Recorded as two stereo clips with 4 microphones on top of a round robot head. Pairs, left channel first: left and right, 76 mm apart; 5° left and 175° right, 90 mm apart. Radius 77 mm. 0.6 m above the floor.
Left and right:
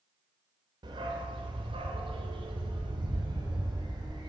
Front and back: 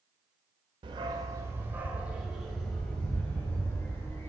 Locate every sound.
0.8 s a dog barking: 130° right, 0.9 m; by 4.3 s 65° right, 2.5 m